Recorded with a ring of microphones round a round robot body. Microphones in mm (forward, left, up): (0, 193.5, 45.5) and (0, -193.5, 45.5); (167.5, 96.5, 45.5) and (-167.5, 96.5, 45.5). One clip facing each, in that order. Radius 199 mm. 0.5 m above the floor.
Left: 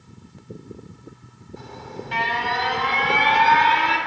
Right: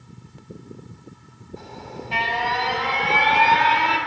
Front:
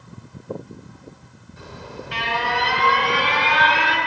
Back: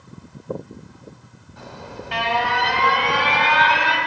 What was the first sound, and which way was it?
An alarm, 155° left.